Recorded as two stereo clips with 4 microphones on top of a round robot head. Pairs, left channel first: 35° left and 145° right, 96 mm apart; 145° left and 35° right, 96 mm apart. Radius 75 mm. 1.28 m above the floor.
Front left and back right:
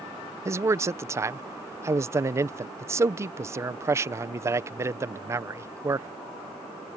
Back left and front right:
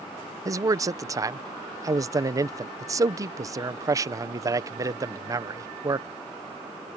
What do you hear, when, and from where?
0.5 s a man speaking: 85° right